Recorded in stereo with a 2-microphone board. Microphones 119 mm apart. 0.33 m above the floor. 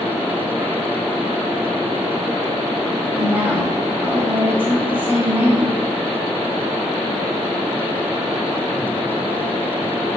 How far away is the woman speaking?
About 2.5 m.